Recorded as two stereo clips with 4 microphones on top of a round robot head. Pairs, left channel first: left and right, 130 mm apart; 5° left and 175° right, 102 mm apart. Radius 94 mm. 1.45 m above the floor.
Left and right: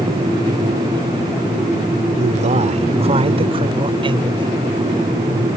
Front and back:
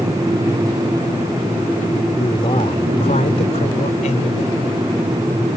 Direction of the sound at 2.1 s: 60° right.